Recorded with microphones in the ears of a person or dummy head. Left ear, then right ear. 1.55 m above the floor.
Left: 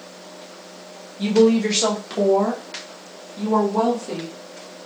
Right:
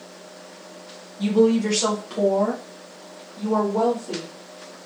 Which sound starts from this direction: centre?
A woman speaking, at 1.2 s.